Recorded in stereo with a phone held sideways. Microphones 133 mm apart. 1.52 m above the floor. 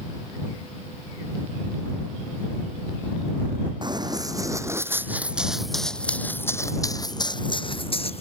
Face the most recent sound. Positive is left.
turn(degrees=50)  # may be behind; listen again after turning